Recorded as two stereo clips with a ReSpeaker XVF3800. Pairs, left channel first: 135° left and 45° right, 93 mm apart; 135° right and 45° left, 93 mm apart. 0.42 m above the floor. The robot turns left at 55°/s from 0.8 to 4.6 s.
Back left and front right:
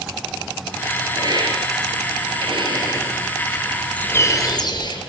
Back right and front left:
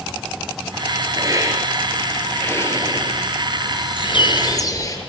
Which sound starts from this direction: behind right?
A bird, at 4.0 s.